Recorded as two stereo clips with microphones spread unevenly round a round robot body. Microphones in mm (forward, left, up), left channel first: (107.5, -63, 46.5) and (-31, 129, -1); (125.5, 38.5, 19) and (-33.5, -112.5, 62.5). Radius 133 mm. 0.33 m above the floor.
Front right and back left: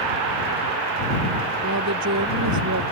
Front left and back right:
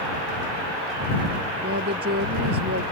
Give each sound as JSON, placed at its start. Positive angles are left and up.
{"t": 1.6, "sound": "a woman speaking", "azimuth_deg": 170}